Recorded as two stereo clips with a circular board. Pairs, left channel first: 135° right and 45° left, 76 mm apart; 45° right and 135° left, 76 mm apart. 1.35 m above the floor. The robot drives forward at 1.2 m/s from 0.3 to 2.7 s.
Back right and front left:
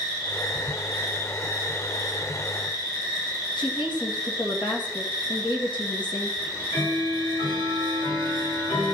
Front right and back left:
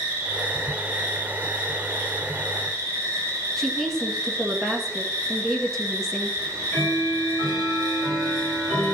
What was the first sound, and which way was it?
An insect, 155° right.